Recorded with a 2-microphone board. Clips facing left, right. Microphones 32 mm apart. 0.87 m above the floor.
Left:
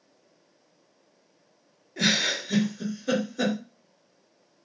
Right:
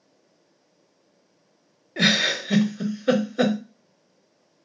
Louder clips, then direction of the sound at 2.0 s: Right 4 dB; 50° right (ahead or behind).